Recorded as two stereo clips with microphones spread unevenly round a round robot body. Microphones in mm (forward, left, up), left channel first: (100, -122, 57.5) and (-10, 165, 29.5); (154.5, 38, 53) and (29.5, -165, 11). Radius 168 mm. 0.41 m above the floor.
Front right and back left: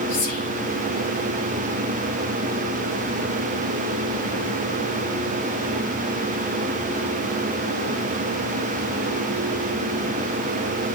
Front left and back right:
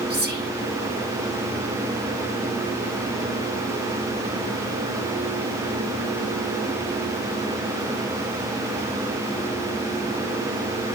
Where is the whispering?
80° right, 3 m.